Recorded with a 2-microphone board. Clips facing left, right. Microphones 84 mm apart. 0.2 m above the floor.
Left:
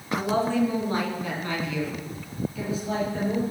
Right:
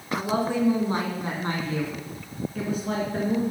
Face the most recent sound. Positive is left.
turn(degrees=-60)  # may be behind; listen again after turning